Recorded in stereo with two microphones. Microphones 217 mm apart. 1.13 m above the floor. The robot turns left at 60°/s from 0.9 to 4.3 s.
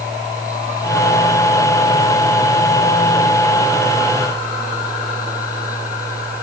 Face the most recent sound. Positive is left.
No sound to turn to.